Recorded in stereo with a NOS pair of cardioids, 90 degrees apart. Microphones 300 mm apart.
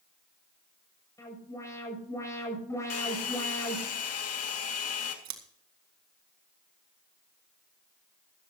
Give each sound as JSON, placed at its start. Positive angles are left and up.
{"t": 1.2, "sound": "an alarm", "azimuth_deg": 10, "distance_m": 7.5}
{"t": 2.9, "sound": "a hair dryer", "azimuth_deg": 55, "distance_m": 2.5}
{"t": 5.2, "sound": "scissors", "azimuth_deg": -65, "distance_m": 2.0}